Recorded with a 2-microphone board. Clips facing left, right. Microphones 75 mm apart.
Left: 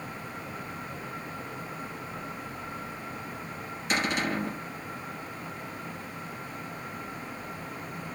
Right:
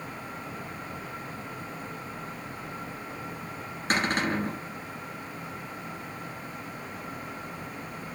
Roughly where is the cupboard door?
Right.